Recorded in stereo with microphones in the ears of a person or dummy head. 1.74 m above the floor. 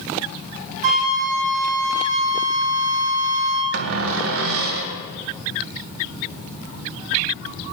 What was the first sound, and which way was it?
A flute, 45° right (ahead or behind).